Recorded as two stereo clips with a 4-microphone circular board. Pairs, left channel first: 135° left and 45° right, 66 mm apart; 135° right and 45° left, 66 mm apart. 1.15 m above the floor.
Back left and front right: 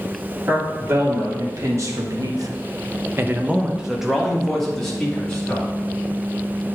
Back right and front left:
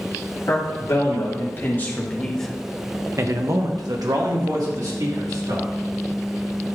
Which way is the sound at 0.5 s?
90° right.